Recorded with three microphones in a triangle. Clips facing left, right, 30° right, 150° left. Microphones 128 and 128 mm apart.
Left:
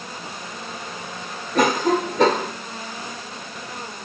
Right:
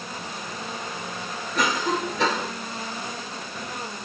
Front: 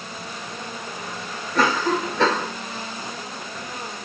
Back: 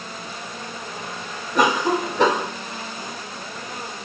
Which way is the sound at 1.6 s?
85° left.